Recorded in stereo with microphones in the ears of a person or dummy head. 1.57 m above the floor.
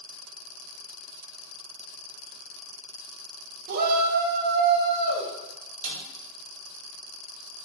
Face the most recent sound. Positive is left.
turn(degrees=-75)  # may be behind; listen again after turning